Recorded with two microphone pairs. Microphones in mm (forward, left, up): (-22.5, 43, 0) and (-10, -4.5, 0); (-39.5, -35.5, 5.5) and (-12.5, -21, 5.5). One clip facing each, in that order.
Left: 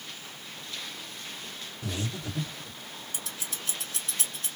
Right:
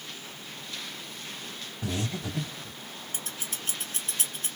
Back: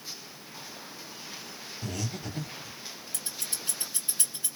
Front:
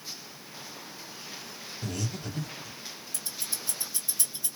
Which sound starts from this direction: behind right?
Scissors, at 3.1 s.